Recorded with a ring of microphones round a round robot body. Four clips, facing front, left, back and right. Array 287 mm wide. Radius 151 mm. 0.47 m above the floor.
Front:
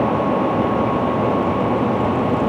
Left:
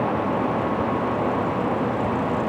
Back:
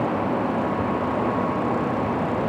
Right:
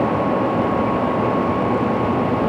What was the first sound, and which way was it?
Only background noise.